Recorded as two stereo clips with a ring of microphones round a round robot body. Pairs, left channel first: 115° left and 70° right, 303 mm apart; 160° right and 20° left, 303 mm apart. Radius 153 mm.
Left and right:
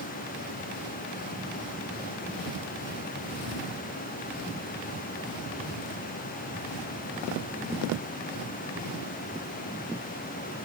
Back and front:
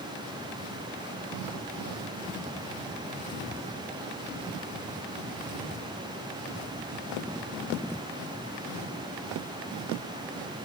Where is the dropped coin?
No dropped coin in this recording.